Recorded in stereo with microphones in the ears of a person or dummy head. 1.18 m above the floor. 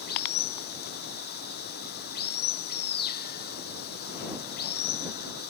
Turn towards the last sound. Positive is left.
turn(degrees=50)  # may be behind; listen again after turning